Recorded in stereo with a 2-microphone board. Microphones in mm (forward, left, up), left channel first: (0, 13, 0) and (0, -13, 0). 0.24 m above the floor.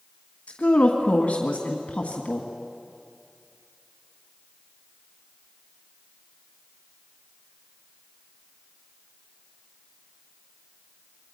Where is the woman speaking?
55° left (ahead or behind), 1.6 m.